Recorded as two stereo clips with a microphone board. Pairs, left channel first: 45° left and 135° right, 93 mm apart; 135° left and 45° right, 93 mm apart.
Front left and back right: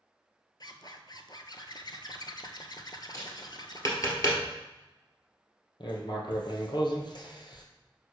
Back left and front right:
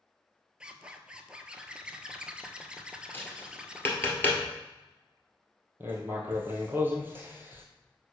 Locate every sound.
0.6 s a zipper: 30° left, 0.6 m
3.1 s tapping: 75° left, 1.6 m
5.8 s writing: 20° left, 1.4 m